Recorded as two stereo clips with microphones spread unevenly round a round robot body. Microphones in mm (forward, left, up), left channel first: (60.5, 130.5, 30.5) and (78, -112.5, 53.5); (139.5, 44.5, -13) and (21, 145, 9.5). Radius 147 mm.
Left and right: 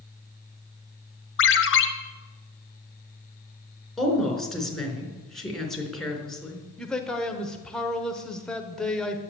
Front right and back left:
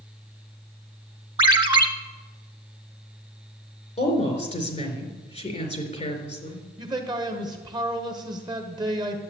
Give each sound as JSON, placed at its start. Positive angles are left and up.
{"t": 1.4, "sound": "a ringtone", "azimuth_deg": 80, "distance_m": 1.5}
{"t": 4.0, "sound": "a woman speaking", "azimuth_deg": 5, "distance_m": 4.0}
{"t": 6.8, "sound": "a man speaking", "azimuth_deg": 160, "distance_m": 1.2}